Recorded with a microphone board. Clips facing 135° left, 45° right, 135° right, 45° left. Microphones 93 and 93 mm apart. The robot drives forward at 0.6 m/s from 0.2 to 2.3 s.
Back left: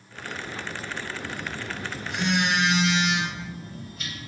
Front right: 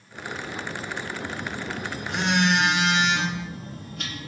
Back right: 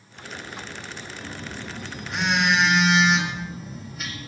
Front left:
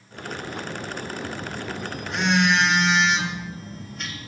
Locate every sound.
1.2 s a phone buzzing: 35° right, 2 m; by 4.3 s 50° right, 1.8 m